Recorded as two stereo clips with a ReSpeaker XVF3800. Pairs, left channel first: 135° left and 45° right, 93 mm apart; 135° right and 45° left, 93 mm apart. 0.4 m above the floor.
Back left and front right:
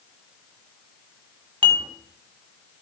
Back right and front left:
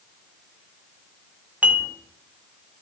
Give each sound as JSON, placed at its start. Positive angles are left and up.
{"t": 1.6, "sound": "dishes clattering", "azimuth_deg": -25, "distance_m": 1.8}